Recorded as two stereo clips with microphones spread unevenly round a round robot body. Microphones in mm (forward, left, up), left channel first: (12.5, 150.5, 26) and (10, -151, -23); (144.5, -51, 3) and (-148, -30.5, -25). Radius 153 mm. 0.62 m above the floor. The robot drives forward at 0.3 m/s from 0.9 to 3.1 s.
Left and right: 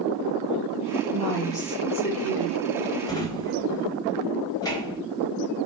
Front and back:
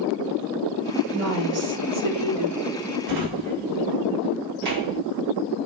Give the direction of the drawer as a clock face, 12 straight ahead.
6 o'clock.